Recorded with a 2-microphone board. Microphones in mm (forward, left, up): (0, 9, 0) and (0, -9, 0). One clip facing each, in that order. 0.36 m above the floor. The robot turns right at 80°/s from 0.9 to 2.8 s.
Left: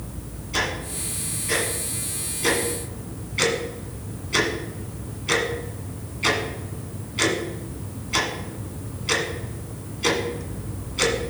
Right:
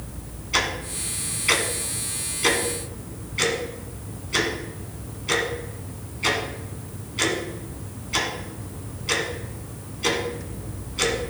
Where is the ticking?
35° right (ahead or behind), 2.0 m; by 11.2 s 10° left (ahead or behind), 2.0 m.